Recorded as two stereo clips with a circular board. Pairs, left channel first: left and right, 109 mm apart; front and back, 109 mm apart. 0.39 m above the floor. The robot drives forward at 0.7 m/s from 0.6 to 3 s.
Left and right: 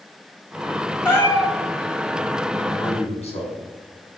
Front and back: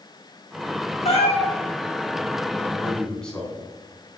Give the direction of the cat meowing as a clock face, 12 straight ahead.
11 o'clock.